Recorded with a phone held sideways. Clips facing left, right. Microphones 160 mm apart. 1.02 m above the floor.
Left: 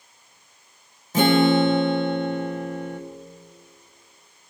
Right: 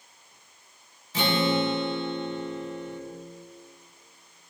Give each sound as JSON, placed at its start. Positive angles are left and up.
{"t": 1.1, "sound": "a guitar", "side_deg": 45, "distance_m": 1.3}